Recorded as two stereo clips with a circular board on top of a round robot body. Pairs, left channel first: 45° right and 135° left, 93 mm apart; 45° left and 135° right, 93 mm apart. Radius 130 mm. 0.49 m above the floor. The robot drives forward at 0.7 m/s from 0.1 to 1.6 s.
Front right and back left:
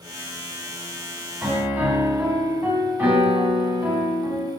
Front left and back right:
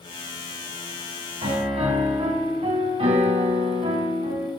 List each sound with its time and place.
1.4 s a piano: 150° right, 2.5 m; by 4.5 s 155° right, 2.5 m